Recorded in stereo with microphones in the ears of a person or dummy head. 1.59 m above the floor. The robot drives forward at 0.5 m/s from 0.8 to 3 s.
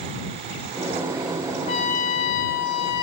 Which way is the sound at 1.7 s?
40° left (ahead or behind).